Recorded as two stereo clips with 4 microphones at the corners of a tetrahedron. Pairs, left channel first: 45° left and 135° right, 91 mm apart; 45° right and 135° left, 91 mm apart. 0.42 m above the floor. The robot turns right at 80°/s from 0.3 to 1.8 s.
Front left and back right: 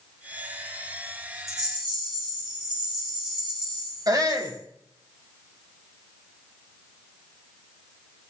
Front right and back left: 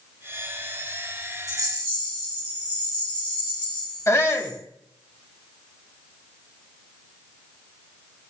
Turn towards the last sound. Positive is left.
turn(degrees=-100)